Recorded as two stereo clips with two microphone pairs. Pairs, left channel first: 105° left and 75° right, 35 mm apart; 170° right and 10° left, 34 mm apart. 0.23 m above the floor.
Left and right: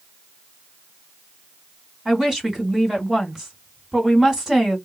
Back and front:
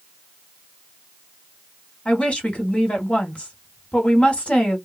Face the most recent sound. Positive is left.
turn(degrees=-145)